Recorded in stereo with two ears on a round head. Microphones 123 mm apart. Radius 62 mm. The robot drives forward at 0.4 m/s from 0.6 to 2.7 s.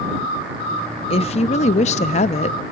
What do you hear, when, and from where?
1.1 s a woman speaking: 45° left (ahead or behind), 0.7 m